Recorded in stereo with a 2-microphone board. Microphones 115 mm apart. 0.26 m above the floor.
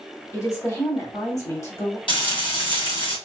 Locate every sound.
0.3 s a woman speaking: 30° left (ahead or behind), 1.8 m
2.1 s frying: 50° left (ahead or behind), 2 m